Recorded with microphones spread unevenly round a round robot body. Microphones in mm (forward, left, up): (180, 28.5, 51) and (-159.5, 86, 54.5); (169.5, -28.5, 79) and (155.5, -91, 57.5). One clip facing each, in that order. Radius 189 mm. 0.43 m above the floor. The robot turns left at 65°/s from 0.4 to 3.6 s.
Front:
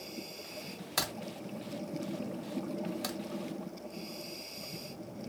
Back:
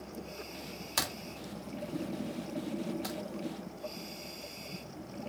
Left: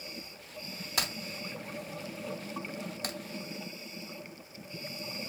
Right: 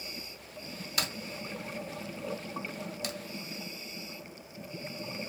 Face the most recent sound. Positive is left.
turn(degrees=-20)